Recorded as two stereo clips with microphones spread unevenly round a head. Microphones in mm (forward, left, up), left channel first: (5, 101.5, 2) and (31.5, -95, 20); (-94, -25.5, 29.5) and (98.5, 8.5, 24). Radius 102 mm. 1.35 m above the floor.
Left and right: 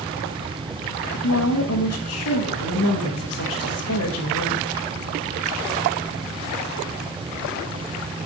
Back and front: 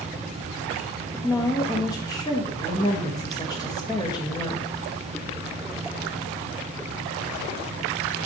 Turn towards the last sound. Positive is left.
turn(degrees=120)